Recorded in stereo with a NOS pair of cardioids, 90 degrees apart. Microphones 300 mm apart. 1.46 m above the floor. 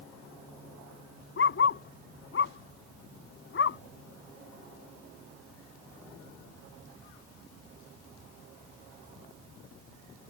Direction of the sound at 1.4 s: 45° left.